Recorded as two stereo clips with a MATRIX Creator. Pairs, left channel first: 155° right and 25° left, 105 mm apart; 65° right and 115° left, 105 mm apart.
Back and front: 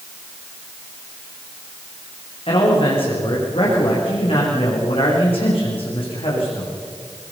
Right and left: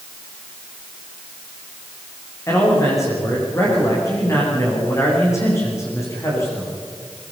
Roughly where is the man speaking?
Behind right.